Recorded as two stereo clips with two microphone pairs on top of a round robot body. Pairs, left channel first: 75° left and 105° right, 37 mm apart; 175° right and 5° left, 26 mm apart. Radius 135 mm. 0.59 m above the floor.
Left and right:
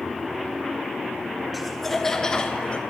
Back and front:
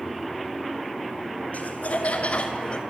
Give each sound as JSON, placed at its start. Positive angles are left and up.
{"t": 1.5, "sound": "laughter", "azimuth_deg": 165, "distance_m": 3.0}